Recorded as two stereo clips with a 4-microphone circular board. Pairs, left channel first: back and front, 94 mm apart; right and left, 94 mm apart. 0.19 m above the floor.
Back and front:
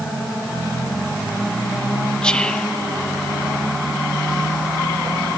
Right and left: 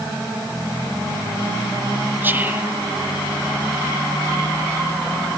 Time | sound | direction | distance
2.2 | whispering | 115° left | 1.1 m